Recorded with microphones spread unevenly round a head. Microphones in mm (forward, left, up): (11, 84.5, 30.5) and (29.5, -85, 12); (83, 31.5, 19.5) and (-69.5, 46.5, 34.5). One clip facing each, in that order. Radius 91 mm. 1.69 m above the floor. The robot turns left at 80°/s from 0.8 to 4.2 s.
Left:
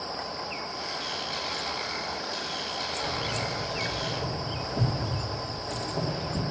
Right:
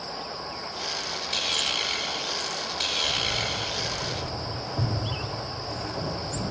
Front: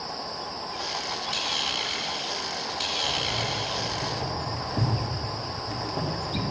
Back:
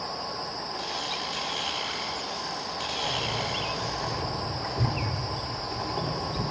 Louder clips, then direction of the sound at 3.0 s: Left 1 dB, even; 120° left.